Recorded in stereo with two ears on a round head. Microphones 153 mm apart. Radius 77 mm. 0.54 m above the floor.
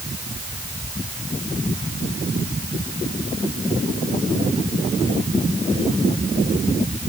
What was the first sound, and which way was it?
Only background noise.